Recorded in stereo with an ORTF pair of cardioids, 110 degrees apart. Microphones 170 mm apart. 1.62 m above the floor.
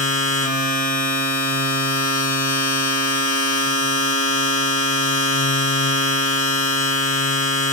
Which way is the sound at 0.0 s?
55° left.